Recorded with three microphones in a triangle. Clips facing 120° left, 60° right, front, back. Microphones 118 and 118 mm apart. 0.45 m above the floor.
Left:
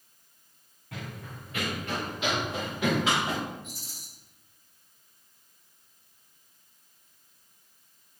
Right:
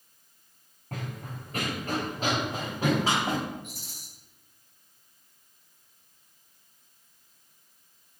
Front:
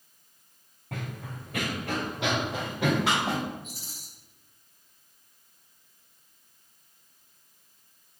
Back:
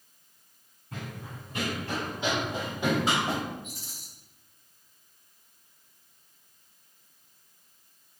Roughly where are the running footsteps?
Ahead.